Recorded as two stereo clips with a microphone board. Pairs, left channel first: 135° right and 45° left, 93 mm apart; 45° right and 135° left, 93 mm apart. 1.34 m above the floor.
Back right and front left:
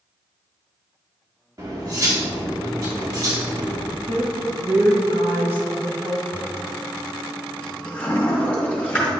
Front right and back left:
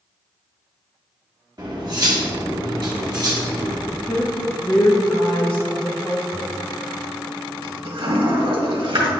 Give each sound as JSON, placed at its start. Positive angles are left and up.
{"t": 1.6, "sound": "cutlery clinking", "azimuth_deg": 95, "distance_m": 1.8}
{"t": 3.9, "sound": "a woman speaking", "azimuth_deg": 30, "distance_m": 1.1}
{"t": 6.3, "sound": "a toilet flushing", "azimuth_deg": 150, "distance_m": 1.9}